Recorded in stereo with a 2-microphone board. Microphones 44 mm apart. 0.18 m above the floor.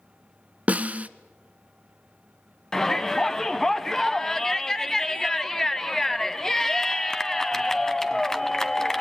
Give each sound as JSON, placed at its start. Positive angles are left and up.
{"t": 0.7, "sound": "a snare drum", "side_deg": -35, "distance_m": 0.6}
{"t": 2.7, "sound": "a shout", "side_deg": 10, "distance_m": 1.0}